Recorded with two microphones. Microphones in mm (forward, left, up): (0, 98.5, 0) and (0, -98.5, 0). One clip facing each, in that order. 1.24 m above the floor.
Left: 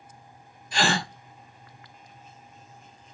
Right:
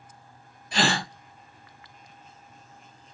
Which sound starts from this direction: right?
A gasp, at 0.7 s.